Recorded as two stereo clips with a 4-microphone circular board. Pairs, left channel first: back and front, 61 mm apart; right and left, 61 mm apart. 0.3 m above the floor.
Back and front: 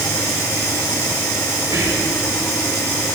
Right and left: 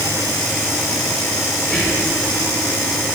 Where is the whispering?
10° right, 5 m.